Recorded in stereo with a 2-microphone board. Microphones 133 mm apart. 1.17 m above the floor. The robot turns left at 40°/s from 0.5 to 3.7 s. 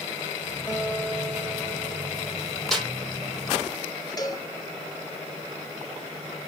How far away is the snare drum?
About 3.5 m.